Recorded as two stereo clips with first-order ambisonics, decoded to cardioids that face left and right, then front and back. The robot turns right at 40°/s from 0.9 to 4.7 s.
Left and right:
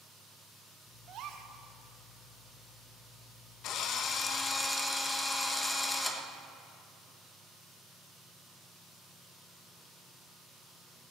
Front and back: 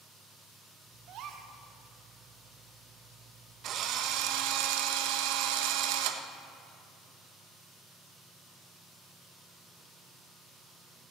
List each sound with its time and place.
1.1 s a gasp: 140° right, 1.2 m; by 1.5 s 125° right, 1.2 m
3.6 s a drill: 130° left, 1.0 m; by 6.2 s 175° left, 1.0 m